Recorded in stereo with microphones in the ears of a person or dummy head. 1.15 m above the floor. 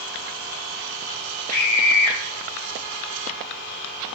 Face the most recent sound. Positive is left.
turn(degrees=25)  # may be behind; listen again after turning